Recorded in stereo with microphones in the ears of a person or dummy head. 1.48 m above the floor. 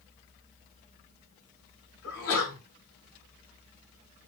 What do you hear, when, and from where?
2.0 s a sneeze: 80° left, 5 m